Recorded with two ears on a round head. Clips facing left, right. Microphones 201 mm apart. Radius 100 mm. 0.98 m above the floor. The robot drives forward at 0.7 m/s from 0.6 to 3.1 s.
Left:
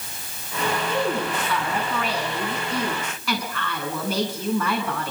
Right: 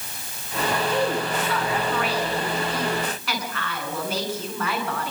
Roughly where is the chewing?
I don't hear chewing.